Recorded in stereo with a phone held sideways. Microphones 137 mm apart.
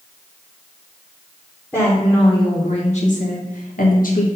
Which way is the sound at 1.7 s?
15° left (ahead or behind).